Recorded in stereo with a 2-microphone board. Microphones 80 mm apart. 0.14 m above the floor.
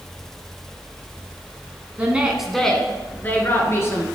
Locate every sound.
2.0 s a woman speaking: 20° right (ahead or behind), 1.3 m; by 4.1 s 35° left (ahead or behind), 2.5 m